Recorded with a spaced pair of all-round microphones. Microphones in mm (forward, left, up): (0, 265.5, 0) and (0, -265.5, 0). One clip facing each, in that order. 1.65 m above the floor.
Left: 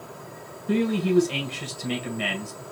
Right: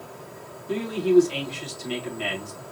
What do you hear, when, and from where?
0.7 s a man speaking: 85° left, 2.5 m